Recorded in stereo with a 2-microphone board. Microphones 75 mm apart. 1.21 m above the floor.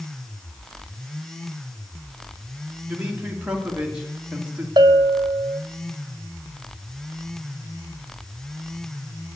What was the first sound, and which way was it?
A man speaking, 15° right (ahead or behind).